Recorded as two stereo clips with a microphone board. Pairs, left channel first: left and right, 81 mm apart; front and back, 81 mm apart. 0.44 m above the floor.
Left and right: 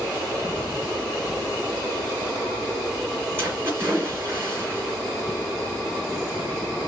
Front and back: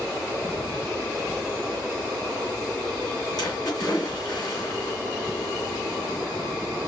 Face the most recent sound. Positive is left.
turn(degrees=-30)